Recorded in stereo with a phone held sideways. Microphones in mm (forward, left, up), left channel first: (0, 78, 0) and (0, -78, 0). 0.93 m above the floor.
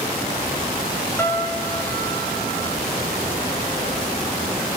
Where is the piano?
15° left (ahead or behind), 2 m.